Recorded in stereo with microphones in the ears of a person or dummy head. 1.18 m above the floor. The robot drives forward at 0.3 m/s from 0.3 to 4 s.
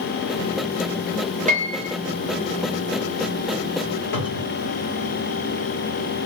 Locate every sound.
1.5 s a piano: 35° right (ahead or behind), 0.9 m; by 2.0 s 30° right (ahead or behind), 1.0 m
4.1 s a cupboard door: 60° left (ahead or behind), 1.4 m